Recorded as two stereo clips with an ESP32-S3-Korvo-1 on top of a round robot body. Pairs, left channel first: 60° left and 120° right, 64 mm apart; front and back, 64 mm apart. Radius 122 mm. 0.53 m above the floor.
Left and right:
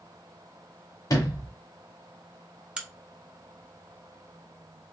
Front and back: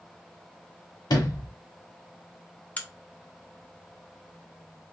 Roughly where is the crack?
Ahead right.